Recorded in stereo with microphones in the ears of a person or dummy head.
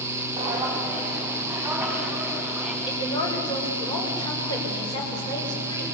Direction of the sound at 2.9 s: 25° left (ahead or behind).